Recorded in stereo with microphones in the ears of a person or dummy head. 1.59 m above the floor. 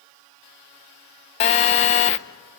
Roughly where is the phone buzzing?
Left.